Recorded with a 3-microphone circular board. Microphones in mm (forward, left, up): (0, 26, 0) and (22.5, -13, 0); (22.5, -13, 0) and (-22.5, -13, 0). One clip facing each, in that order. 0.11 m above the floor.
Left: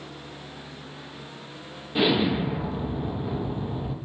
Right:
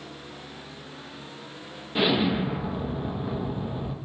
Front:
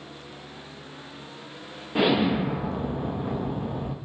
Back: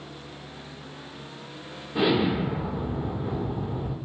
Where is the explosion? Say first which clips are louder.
Left 1 dB, front 1 dB; 25° left, 0.6 m.